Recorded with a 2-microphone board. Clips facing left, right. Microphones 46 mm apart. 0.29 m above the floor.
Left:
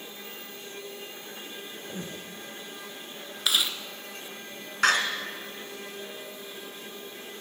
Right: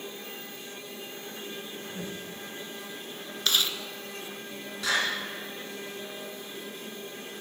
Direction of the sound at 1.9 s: 65° left (ahead or behind).